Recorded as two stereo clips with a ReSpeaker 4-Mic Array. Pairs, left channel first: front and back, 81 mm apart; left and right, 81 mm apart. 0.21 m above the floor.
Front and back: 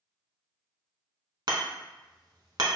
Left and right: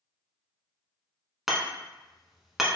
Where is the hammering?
175° right, 0.7 m.